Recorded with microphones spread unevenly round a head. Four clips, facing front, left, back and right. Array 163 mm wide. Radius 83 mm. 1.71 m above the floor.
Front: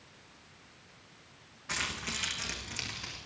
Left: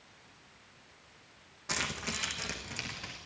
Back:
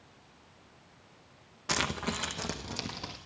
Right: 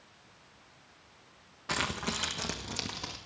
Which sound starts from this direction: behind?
Keys jangling, at 1.7 s.